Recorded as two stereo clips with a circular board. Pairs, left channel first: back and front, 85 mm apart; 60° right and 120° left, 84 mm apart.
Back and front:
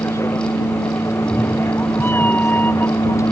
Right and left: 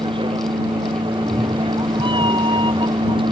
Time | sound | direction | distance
0.0 | a vehicle | 120° left | ?
1.1 | a cat meowing | 110° left | ?